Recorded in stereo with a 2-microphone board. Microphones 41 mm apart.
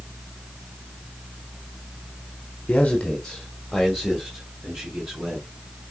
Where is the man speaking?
30° left (ahead or behind), 1.5 m; by 5.5 s 15° right (ahead or behind), 4 m.